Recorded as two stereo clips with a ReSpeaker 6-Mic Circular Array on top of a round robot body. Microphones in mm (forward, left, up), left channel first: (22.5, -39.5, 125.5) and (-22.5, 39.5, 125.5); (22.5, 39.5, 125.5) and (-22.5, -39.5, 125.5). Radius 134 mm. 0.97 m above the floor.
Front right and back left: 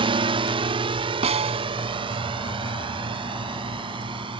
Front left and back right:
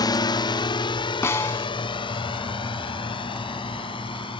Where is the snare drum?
125° left.